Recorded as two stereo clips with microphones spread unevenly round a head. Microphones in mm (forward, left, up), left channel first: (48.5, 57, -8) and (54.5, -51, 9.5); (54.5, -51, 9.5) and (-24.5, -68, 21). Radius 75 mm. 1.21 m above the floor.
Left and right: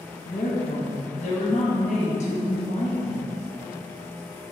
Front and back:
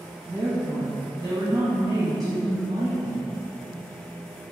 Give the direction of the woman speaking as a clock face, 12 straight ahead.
8 o'clock.